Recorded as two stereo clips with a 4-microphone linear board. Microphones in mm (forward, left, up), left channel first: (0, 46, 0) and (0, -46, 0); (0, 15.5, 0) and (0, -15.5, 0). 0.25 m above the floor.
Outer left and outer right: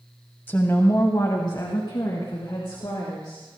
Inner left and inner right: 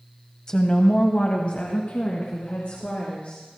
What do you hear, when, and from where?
0.5 s a woman speaking: 25° left (ahead or behind), 1.0 m; by 3.6 s 65° left (ahead or behind), 3.5 m